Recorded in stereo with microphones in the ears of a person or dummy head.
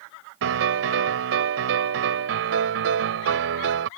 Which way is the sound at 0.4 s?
65° right (ahead or behind).